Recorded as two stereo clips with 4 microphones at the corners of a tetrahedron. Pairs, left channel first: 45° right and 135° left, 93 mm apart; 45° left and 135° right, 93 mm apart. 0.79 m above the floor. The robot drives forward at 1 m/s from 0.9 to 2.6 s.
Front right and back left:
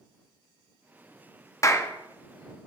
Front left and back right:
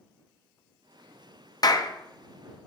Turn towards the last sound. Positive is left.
turn(degrees=170)